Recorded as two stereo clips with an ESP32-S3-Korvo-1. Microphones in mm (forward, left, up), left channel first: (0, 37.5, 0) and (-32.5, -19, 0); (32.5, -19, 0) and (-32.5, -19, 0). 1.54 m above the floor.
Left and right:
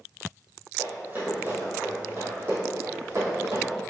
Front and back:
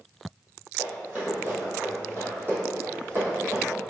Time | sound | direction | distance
0.8 | running footsteps | 135° right | 1.8 m